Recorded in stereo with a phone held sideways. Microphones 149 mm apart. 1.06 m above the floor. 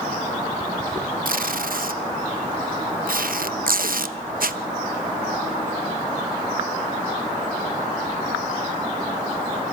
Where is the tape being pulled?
75° right (ahead or behind), 0.9 m.